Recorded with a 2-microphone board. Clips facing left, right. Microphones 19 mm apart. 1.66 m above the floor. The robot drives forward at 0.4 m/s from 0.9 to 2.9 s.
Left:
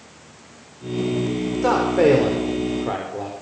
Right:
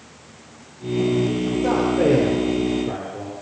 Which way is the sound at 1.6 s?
60° left (ahead or behind).